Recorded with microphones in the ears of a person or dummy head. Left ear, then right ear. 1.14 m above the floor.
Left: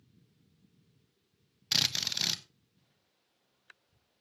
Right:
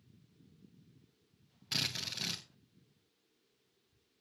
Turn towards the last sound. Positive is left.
turn(degrees=25)  # may be behind; listen again after turning